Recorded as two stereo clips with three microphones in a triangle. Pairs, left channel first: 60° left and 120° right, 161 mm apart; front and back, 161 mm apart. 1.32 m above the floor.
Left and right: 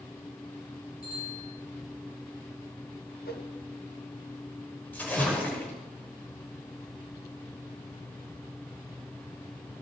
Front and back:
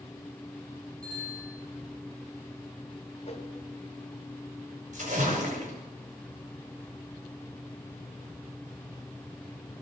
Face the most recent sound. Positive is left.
turn(degrees=140)